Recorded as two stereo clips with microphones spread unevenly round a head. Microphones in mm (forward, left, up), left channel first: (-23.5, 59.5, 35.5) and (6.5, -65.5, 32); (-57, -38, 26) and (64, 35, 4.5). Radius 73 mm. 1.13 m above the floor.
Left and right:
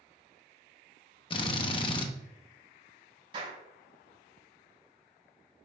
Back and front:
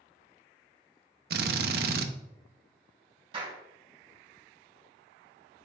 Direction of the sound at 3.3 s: 25° right.